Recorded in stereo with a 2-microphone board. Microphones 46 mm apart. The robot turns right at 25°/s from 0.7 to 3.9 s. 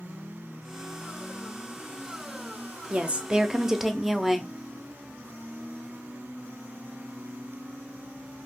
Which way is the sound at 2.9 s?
30° right (ahead or behind).